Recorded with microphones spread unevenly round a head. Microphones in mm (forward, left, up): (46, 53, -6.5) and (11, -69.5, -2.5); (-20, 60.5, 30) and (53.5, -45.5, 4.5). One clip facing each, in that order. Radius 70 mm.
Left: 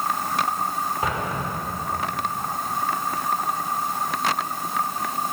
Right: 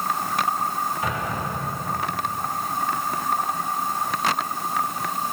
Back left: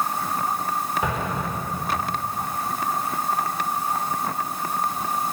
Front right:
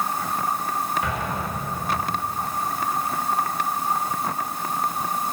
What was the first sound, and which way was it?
An explosion, 140° left.